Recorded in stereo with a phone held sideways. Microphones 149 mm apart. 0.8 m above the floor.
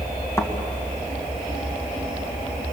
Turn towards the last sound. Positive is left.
turn(degrees=20)  # may be behind; listen again after turning